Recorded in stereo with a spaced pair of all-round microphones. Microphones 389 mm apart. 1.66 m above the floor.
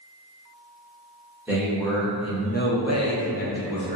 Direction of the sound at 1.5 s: 5° right (ahead or behind).